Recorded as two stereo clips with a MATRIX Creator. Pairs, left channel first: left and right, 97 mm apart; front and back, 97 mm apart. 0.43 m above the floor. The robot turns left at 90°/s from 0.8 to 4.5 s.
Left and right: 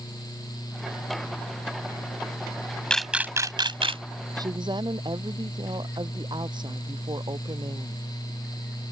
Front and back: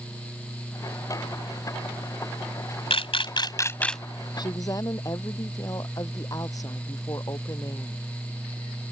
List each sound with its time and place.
2.9 s a camera shutter: 10° left; by 4.0 s 90° right
4.4 s a woman speaking: 40° right; by 8.0 s 50° right